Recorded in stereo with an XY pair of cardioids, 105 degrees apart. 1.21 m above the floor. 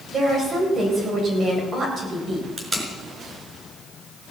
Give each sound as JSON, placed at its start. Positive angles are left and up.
{"t": 0.1, "sound": "a woman speaking", "azimuth_deg": -50, "distance_m": 7.5}
{"t": 2.6, "sound": "tape being pulled", "azimuth_deg": -25, "distance_m": 4.5}